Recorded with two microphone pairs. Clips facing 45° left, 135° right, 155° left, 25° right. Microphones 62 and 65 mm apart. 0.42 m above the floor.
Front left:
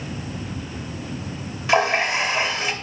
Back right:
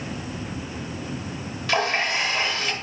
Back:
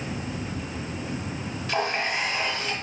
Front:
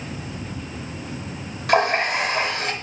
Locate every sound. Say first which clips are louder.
1.7 s a running tap: front left 4 dB, front 8 dB; 20° right, 0.8 m